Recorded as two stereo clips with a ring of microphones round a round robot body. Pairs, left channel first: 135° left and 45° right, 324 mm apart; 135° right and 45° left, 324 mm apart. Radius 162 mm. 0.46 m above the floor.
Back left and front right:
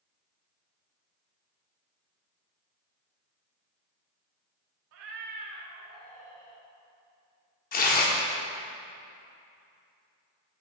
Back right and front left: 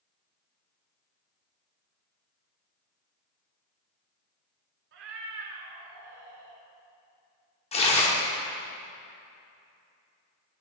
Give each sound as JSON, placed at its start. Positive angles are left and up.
{"t": 4.9, "sound": "a cat meowing", "azimuth_deg": -5, "distance_m": 0.6}
{"t": 7.7, "sound": "tearing paper", "azimuth_deg": 170, "distance_m": 0.7}